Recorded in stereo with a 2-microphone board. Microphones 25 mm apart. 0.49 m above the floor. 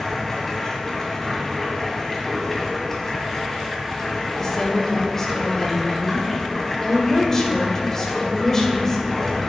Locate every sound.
0.0 s running water: 15° left (ahead or behind), 1.9 m
4.4 s a woman speaking: 25° left (ahead or behind), 1.7 m